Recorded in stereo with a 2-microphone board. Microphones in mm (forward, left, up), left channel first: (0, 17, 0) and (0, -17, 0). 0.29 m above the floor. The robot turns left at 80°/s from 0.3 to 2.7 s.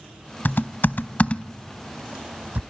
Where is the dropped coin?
No dropped coin in this recording.